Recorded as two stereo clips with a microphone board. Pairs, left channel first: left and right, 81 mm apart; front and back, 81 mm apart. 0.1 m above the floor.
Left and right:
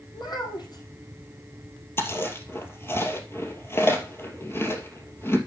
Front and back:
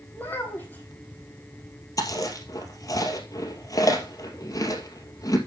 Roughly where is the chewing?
Ahead left.